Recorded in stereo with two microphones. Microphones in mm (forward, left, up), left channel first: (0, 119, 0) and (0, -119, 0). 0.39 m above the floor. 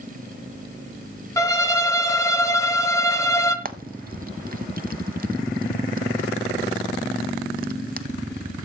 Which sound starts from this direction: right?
Frying, at 3.6 s.